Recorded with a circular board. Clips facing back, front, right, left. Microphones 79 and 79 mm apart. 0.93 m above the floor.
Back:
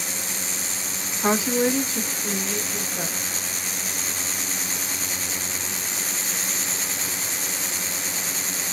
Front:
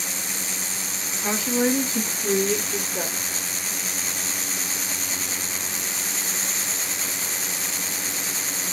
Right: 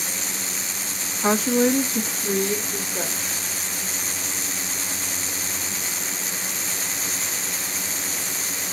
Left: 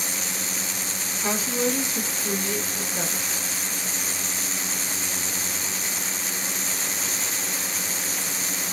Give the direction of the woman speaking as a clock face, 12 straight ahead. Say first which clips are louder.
Back 2 dB, right 7 dB; 5 o'clock.